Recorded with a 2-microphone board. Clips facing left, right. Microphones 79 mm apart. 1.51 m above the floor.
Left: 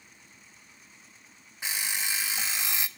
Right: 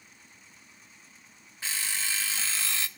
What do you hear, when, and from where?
1.6 s an alarm clock: 15° left (ahead or behind), 0.6 m